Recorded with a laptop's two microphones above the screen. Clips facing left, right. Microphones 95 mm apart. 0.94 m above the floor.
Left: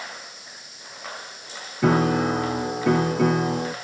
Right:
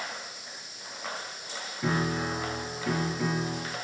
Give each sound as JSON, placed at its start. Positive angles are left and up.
{"t": 1.8, "sound": "a piano", "side_deg": 70, "distance_m": 1.1}